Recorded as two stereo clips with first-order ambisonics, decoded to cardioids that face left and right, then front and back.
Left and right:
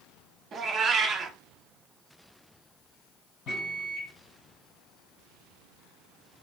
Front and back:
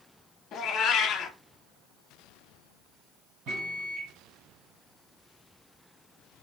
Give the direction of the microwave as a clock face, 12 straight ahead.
7 o'clock.